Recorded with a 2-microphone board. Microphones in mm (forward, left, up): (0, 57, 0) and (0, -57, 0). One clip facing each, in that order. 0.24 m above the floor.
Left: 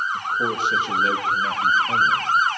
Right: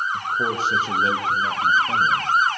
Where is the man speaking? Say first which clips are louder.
Even; 40° right (ahead or behind), 7 m; by 2.3 s 20° right (ahead or behind), 7 m.